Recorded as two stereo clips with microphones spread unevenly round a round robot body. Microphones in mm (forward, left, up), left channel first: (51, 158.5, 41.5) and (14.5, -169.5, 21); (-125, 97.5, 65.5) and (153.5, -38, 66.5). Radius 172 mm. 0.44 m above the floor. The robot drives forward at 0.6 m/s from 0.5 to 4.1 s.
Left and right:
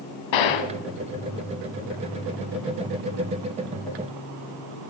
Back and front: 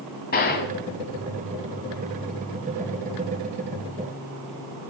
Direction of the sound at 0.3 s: 90° left.